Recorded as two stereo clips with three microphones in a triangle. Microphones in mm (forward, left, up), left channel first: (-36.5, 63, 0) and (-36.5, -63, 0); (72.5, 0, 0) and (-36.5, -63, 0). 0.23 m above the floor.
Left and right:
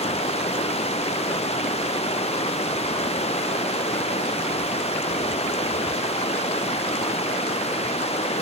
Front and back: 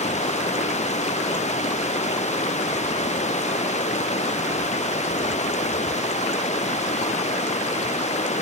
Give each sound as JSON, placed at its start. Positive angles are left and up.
{"t": 0.0, "sound": "running water", "azimuth_deg": 55}